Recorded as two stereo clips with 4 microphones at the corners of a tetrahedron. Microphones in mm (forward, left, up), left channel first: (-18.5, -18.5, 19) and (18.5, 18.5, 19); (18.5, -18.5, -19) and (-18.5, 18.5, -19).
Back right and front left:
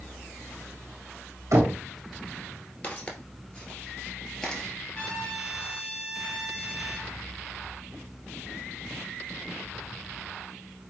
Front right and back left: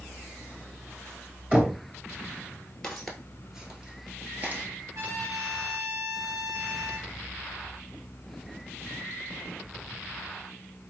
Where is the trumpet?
150° left, 1.6 m.